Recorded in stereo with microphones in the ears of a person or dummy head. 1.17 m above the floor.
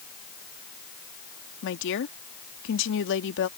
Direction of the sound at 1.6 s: 65° left (ahead or behind).